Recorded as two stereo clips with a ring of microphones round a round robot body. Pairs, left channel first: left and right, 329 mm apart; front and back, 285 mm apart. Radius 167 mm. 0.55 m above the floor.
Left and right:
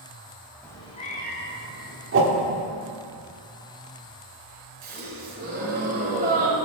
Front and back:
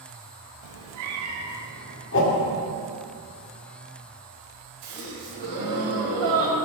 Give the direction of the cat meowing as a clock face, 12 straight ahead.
6 o'clock.